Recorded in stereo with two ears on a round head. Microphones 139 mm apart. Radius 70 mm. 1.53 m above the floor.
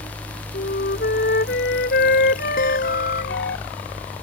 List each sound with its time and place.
0.5 s a flute: 65° left (ahead or behind)
2.6 s a guitar: 55° left (ahead or behind)